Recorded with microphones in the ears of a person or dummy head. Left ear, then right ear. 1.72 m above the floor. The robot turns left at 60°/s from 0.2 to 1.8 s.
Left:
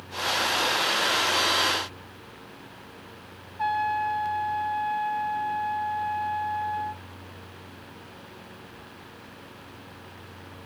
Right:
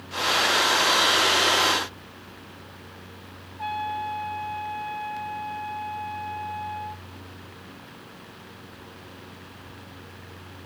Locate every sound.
3.6 s a trumpet: 50° left (ahead or behind), 1.3 m